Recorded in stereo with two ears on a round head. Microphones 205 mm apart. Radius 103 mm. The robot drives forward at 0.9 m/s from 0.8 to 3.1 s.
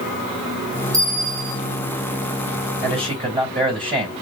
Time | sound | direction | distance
0.9 | a bell | 15° right (ahead or behind) | 1.2 m
2.8 | a man speaking | 25° right (ahead or behind) | 4 m